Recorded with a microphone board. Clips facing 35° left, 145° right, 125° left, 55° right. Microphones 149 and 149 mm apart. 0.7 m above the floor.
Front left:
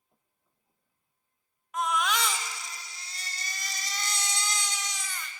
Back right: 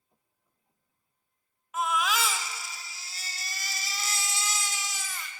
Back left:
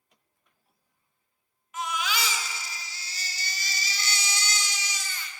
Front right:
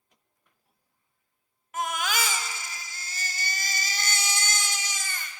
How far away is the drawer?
No drawer in this recording.